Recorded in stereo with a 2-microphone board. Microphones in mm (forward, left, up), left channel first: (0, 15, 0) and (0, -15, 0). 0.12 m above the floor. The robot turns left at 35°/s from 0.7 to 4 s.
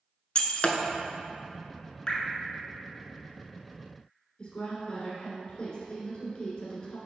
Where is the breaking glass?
35° left (ahead or behind), 0.7 m.